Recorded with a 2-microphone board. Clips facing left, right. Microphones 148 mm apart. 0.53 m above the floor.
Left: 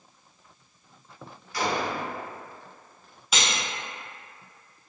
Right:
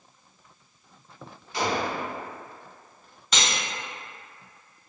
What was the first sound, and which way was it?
A gunshot, 20° right (ahead or behind).